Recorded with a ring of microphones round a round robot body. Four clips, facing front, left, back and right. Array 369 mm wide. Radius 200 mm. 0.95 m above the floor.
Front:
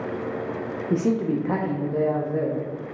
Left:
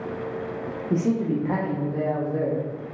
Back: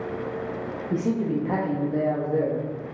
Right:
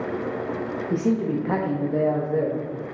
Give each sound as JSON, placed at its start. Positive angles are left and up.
{"t": 0.9, "sound": "a man speaking", "azimuth_deg": 15, "distance_m": 0.7}